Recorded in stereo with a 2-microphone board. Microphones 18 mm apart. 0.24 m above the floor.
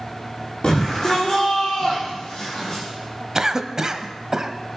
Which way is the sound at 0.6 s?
55° left (ahead or behind).